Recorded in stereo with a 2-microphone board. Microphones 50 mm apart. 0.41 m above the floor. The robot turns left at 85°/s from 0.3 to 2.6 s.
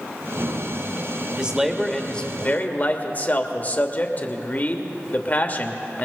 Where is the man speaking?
145° right, 1.2 m; by 6.1 s 110° left, 1.2 m.